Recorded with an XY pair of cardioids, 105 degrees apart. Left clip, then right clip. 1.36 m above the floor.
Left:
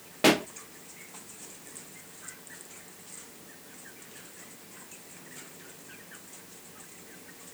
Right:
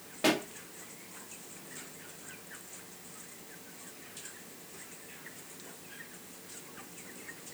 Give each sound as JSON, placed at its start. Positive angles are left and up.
{"t": 0.2, "sound": "a pop", "azimuth_deg": 45, "distance_m": 0.7}